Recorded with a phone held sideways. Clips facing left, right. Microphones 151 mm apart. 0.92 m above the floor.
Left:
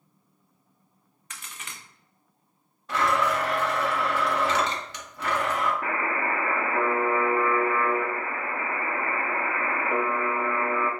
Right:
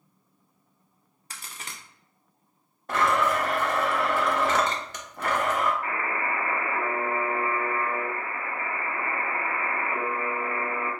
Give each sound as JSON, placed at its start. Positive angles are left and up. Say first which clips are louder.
{"t": 1.3, "sound": "a crack", "louder": "right 1 dB", "side_deg": -35, "distance_m": 0.6}
{"t": 2.9, "sound": "a blender", "louder": "right 1 dB", "side_deg": -50, "distance_m": 0.7}
{"t": 5.8, "sound": "a buzzer", "louder": "left 2 dB", "side_deg": 75, "distance_m": 0.7}